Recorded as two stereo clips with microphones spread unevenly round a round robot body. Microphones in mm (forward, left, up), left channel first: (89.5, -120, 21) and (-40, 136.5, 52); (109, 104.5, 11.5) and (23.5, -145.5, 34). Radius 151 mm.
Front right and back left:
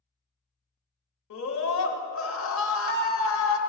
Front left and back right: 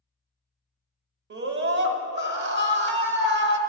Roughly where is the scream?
Right.